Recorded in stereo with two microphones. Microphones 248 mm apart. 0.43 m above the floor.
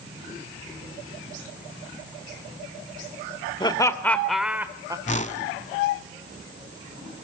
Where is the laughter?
20° left (ahead or behind), 1.2 m; by 5.0 s 15° right (ahead or behind), 1.4 m.